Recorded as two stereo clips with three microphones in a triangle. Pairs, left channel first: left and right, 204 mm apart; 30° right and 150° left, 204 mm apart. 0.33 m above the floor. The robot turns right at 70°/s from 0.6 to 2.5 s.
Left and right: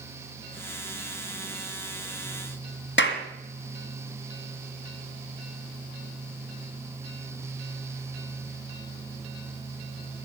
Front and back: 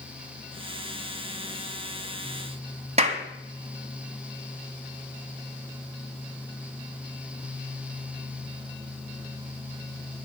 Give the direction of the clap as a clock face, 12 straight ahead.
9 o'clock.